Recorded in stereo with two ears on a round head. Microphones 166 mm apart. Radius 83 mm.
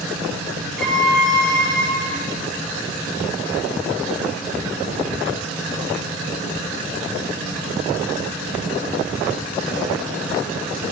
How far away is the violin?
About 0.9 m.